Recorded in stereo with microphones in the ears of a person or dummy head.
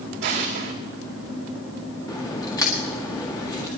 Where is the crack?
15° left (ahead or behind), 1.8 m.